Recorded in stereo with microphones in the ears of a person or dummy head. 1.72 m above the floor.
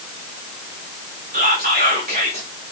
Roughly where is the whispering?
Right.